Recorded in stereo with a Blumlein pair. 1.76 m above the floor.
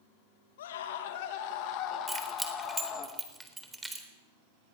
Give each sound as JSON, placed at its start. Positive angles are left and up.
{"t": 0.6, "sound": "a scream", "azimuth_deg": 60, "distance_m": 3.0}
{"t": 2.1, "sound": "keys jangling", "azimuth_deg": -5, "distance_m": 4.0}